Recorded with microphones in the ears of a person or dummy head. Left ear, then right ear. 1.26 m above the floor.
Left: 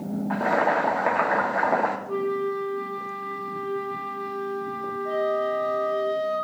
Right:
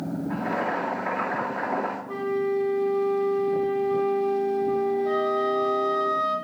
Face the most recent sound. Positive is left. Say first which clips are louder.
# right 1 dB
turn(degrees=-45)  # may be behind; listen again after turning